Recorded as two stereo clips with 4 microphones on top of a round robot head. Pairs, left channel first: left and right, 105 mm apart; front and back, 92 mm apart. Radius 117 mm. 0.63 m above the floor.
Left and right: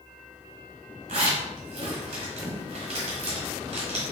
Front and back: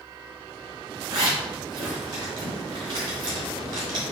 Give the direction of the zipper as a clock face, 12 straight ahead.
4 o'clock.